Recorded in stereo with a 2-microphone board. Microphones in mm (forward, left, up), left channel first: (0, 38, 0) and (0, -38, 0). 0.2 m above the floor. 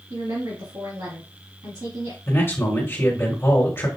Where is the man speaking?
30° left (ahead or behind), 1.7 m.